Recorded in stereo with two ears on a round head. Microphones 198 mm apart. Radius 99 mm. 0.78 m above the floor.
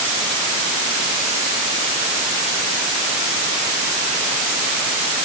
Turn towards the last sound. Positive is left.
No sound to turn to.